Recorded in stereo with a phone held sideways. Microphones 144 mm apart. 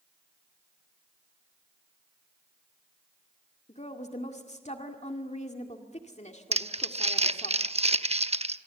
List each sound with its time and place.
3.7 s a woman speaking: 55° left (ahead or behind), 1.9 m
6.5 s crumpling: 45° right (ahead or behind), 0.8 m